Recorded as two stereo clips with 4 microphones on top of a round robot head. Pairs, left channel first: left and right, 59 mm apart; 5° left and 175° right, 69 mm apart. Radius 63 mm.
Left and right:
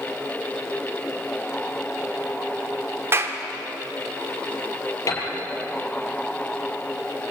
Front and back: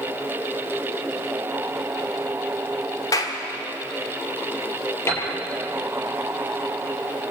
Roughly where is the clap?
Ahead right.